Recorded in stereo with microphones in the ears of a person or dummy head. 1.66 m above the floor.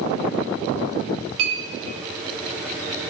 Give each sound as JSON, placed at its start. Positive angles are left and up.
{"t": 1.4, "sound": "a clink", "side_deg": -75, "distance_m": 2.5}